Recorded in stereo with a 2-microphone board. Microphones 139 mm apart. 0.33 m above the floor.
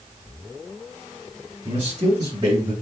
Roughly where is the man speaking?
Right.